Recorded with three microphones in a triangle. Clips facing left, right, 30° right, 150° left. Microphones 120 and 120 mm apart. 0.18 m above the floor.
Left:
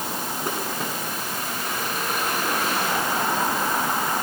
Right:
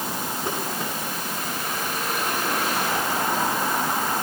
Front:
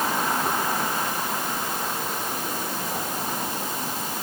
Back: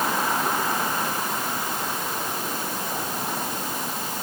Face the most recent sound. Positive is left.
No sound to turn to.